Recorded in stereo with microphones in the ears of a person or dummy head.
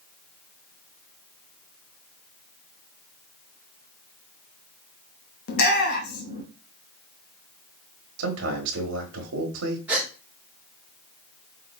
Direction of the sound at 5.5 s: 50° left (ahead or behind).